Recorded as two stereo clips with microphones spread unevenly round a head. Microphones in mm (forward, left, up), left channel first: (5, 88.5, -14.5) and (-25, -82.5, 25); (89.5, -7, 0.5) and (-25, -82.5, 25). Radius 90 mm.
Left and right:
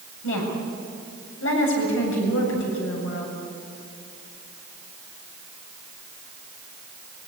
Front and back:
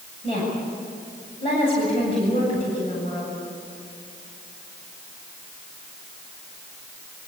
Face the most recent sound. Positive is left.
turn(degrees=95)